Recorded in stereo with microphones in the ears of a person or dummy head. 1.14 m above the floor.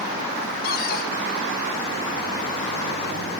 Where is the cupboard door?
50° left (ahead or behind), 2.5 m.